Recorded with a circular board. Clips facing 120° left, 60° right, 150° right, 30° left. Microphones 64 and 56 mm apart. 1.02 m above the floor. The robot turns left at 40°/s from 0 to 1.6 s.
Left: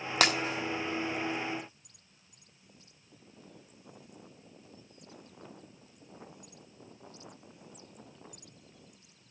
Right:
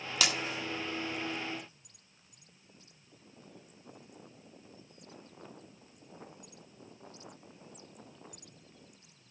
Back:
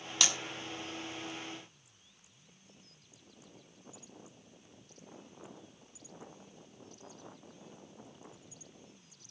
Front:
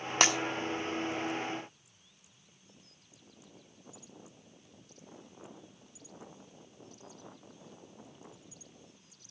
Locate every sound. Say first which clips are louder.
0.2 s breaking glass: left 6 dB, front 7 dB; 75° left, 1.3 m; by 0.3 s 70° left, 1.3 m